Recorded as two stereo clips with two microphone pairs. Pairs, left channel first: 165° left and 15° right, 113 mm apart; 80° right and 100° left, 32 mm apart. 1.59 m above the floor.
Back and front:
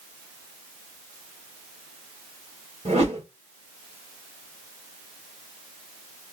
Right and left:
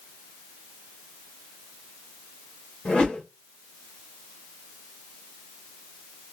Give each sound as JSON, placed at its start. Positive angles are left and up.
{"t": 2.9, "sound": "a whoosh", "azimuth_deg": -40, "distance_m": 1.4}